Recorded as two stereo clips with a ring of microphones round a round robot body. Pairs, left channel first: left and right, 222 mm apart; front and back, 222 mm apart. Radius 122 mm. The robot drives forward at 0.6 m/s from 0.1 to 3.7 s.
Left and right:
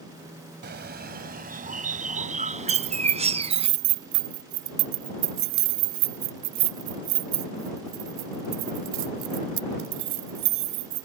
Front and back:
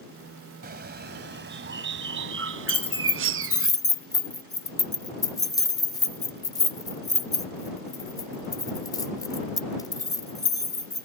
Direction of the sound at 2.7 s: 65° right.